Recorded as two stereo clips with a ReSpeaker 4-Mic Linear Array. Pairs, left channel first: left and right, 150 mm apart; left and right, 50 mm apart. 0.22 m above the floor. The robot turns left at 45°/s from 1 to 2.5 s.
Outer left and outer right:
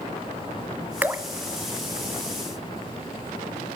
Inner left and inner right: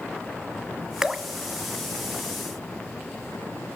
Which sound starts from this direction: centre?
Dripping, at 1.0 s.